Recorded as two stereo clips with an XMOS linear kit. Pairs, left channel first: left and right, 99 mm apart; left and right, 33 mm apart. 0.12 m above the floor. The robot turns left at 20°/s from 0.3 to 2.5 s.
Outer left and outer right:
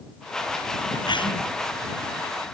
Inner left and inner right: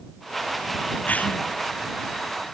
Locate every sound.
1.1 s a cough: 50° left (ahead or behind); by 1.4 s 55° left (ahead or behind)